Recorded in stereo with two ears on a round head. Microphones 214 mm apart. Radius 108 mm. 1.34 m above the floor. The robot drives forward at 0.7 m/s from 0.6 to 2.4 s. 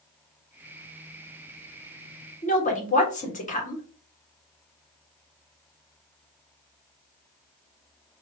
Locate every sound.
2.4 s a woman speaking: 35° left (ahead or behind), 1.4 m